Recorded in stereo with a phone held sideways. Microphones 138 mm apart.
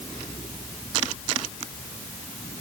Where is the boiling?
I don't hear boiling.